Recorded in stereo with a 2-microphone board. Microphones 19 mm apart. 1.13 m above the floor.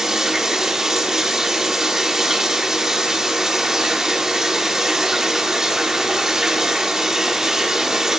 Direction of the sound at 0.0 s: 35° right (ahead or behind).